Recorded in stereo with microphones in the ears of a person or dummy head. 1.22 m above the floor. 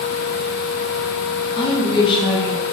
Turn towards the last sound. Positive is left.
turn(degrees=25)  # may be behind; listen again after turning